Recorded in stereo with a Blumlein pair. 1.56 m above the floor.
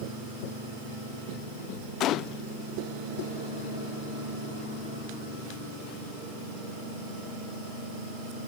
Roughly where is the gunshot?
Ahead left.